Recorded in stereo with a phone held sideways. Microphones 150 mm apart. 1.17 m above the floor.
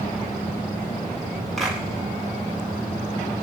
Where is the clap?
Centre (ahead or behind), 8.5 m.